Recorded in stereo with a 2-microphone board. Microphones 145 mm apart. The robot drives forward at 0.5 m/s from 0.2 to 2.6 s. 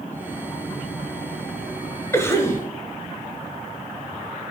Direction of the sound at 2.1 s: 20° left (ahead or behind).